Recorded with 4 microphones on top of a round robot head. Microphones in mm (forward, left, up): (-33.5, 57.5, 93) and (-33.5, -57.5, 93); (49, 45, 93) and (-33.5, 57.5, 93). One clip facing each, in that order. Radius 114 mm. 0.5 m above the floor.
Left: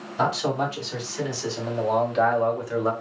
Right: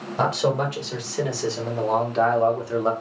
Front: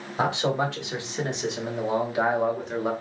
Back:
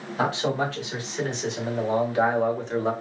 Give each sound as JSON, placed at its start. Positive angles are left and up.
{"t": 0.2, "sound": "a man speaking", "azimuth_deg": -75, "distance_m": 2.0}